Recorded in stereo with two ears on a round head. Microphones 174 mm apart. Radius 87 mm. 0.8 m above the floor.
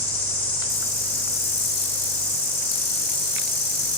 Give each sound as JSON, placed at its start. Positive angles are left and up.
{"t": 0.0, "sound": "an insect", "side_deg": 50, "distance_m": 3.5}